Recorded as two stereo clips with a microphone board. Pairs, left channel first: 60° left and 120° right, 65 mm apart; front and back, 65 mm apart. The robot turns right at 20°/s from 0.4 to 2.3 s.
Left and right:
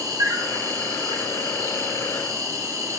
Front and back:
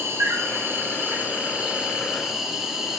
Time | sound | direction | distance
0.0 | an insect | 135° right | 0.9 m